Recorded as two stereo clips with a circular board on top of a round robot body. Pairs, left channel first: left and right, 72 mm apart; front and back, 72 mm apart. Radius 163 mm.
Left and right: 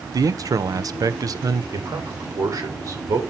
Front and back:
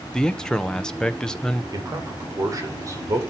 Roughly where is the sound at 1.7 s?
Behind right.